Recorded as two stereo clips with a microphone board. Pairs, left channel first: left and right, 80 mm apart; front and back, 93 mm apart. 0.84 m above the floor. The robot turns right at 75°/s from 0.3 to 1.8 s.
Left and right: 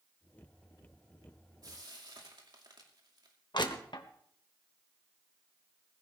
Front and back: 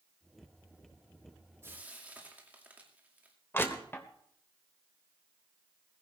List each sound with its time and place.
1.6 s frying: 125° right, 2.5 m; by 3.4 s 110° right, 2.5 m
3.5 s crushing: 65° left, 1.4 m